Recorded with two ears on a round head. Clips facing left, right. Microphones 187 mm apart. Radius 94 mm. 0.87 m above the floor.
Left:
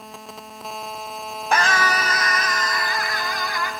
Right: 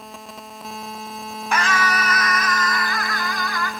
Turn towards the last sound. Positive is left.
turn(degrees=20)  # may be behind; listen again after turning